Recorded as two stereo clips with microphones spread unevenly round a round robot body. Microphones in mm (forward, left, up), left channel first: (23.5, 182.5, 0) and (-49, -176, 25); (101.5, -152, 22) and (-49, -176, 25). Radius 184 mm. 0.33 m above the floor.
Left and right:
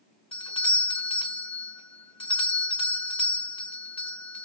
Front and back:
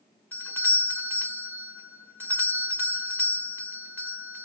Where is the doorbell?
55° left, 1.3 m.